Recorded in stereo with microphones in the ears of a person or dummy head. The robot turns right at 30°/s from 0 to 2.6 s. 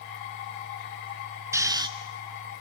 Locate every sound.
1.5 s snoring: 10° right (ahead or behind), 0.5 m; by 1.9 s 20° right (ahead or behind), 0.5 m